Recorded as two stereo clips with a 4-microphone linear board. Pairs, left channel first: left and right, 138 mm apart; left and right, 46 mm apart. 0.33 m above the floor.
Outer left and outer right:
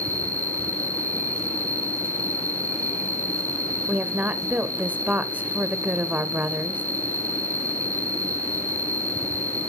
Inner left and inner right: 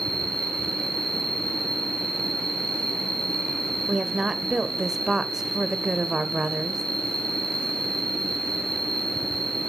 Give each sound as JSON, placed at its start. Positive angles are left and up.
{"t": 0.0, "sound": "an insect", "side_deg": 15, "distance_m": 3.5}
{"t": 3.9, "sound": "a woman speaking", "side_deg": -10, "distance_m": 0.9}